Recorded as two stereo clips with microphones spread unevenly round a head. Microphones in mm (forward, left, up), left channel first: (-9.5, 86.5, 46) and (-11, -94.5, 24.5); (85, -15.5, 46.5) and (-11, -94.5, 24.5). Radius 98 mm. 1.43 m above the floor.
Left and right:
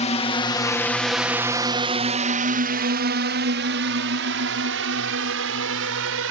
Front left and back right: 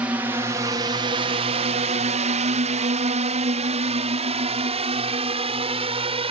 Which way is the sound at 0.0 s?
145° left.